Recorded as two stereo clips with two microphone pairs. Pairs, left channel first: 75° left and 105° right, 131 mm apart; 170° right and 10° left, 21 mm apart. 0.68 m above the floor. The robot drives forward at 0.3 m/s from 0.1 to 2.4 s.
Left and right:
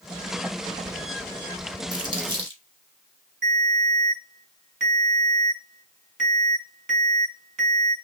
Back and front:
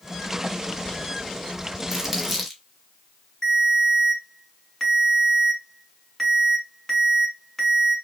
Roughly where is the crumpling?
Right.